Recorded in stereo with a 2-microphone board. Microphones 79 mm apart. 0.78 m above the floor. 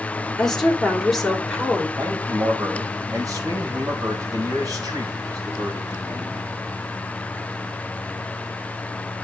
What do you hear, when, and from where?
0.4 s a woman speaking: 5° left (ahead or behind), 2.5 m; by 1.9 s centre (ahead or behind), 3 m
2.0 s a man speaking: 50° right (ahead or behind), 4.5 m